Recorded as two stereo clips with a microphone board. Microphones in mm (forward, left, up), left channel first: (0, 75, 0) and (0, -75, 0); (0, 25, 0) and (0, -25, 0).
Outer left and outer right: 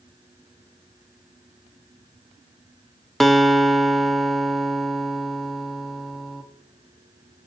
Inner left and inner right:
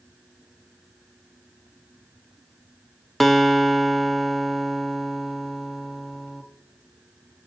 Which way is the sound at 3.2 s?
Centre (ahead or behind).